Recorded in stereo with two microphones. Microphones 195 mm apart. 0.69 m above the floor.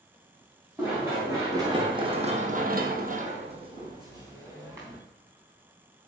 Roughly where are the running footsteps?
Centre.